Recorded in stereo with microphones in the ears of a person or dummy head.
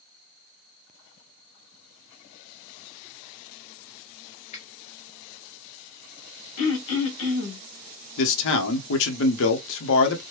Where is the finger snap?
30° left (ahead or behind), 0.8 m.